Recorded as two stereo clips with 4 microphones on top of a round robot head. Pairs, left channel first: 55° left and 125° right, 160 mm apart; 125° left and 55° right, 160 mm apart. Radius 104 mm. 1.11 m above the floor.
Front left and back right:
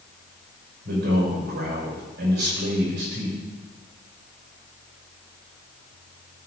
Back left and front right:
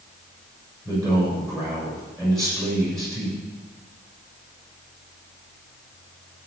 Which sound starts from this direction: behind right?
A man speaking, at 0.8 s.